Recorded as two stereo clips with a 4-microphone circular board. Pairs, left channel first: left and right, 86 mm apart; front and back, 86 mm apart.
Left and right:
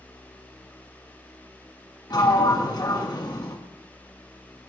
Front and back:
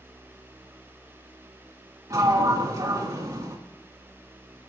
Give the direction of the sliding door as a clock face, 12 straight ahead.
8 o'clock.